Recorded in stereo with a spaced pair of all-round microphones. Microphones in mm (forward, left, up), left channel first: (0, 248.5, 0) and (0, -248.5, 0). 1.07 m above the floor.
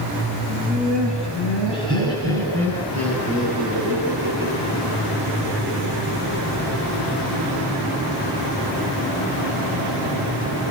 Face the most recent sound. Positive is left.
turn(degrees=-25)  # may be behind; listen again after turning